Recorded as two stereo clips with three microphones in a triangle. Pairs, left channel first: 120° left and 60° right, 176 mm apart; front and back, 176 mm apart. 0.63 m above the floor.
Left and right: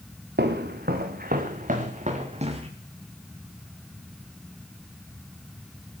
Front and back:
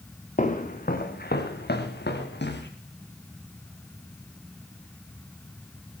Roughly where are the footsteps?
Ahead right.